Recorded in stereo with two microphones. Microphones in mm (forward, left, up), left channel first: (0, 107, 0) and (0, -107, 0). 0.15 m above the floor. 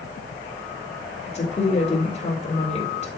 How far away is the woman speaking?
About 5 m.